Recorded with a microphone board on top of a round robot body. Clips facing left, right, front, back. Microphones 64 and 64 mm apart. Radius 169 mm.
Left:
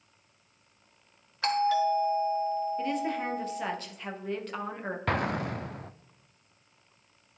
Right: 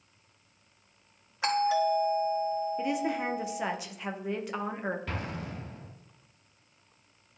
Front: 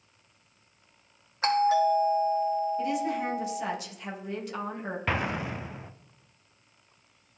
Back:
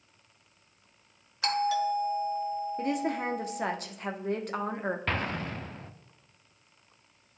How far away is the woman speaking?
About 1.3 m.